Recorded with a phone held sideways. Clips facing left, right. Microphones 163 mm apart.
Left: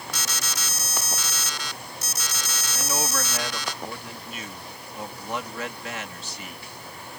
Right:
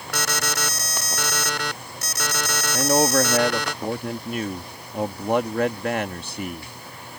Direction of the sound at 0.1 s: 65° right (ahead or behind).